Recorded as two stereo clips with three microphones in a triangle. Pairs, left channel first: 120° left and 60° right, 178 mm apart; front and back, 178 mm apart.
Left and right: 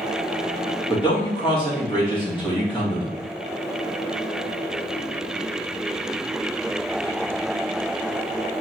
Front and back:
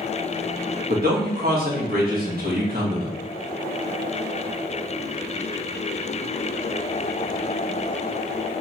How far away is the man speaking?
About 1.6 m.